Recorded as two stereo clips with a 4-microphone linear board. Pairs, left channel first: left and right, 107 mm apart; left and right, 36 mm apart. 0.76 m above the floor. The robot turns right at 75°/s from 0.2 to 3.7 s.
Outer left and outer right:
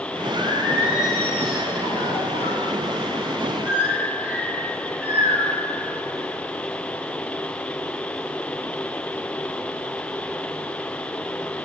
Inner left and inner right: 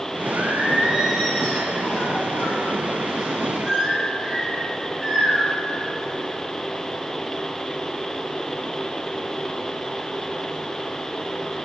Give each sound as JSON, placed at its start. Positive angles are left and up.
{"t": 0.3, "sound": "singing", "azimuth_deg": -55, "distance_m": 4.5}